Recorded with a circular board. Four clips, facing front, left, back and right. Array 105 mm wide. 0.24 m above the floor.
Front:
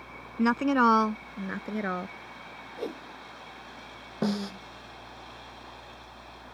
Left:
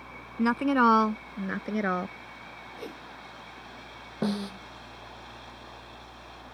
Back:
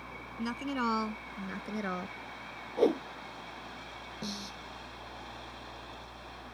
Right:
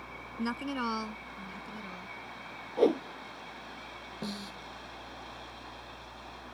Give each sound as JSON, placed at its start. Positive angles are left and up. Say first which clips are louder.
{"t": 0.4, "sound": "a woman speaking", "louder": "left 11 dB, front 11 dB", "azimuth_deg": 35}
{"t": 2.8, "sound": "a whoosh", "louder": "right 18 dB, back 10 dB", "azimuth_deg": -125}
{"t": 4.2, "sound": "a snare drum", "louder": "left 11 dB, front 14 dB", "azimuth_deg": 40}